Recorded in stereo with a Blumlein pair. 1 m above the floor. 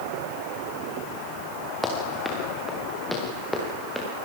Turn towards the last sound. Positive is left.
turn(degrees=0)